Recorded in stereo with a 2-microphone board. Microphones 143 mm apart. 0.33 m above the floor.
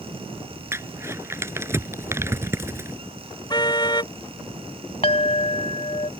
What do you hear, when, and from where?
0.7 s crumpling: 20° right (ahead or behind)
3.5 s a car horn: 30° left (ahead or behind)
5.0 s a clink: 45° left (ahead or behind)